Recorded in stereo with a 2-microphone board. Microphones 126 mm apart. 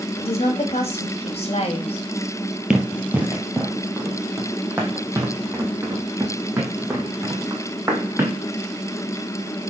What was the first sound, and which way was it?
A woman speaking, 55° left (ahead or behind).